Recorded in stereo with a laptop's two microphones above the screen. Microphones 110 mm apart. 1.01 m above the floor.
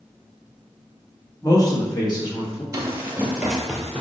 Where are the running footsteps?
25° right (ahead or behind), 1.2 m; by 4.0 s 10° left (ahead or behind), 1.3 m.